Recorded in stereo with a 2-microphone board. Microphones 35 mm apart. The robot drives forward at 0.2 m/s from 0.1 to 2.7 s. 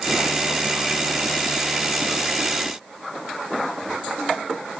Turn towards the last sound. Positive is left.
No sound to turn to.